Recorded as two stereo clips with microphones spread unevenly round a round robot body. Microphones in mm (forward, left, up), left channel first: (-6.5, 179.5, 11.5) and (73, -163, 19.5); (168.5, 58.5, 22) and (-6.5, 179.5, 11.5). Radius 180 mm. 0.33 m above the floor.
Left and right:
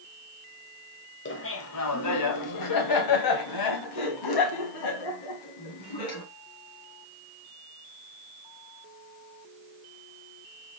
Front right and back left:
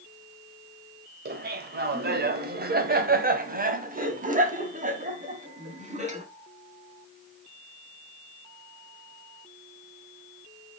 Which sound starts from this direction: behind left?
Laughter, at 1.2 s.